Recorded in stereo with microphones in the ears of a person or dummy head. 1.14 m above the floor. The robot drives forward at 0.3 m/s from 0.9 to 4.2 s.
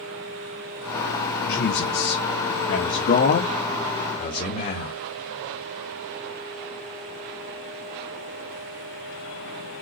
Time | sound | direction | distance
1.5 | a man speaking | 60° left (ahead or behind) | 1.5 m